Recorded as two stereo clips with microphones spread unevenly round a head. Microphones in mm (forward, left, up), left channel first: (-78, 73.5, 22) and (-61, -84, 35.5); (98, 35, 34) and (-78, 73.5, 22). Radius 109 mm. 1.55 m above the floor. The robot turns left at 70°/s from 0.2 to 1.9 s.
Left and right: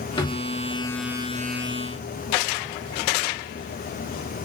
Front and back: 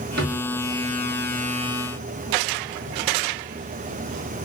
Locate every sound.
0.2 s a drawer: 160° left, 1.3 m; by 0.5 s 140° left, 1.3 m